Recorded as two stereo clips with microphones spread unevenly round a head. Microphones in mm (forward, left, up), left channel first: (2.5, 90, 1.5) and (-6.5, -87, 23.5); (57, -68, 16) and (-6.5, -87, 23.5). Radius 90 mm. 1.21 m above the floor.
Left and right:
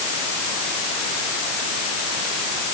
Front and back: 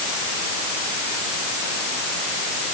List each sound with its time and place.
Only background noise.